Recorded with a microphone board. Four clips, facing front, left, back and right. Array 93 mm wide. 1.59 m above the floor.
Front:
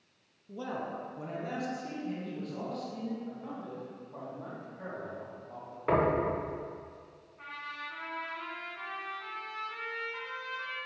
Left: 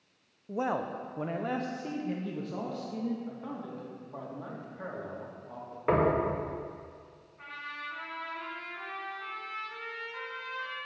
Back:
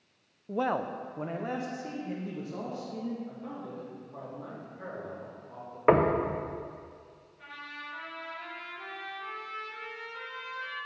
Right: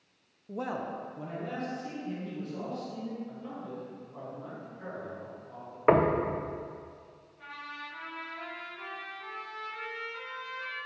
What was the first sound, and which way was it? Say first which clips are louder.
A man speaking: left 3 dB, back 7 dB; 170° left.